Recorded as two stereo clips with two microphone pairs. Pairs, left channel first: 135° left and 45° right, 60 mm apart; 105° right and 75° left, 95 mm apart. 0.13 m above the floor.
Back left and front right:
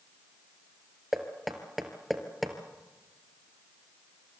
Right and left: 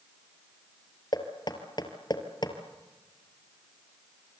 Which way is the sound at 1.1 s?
135° right.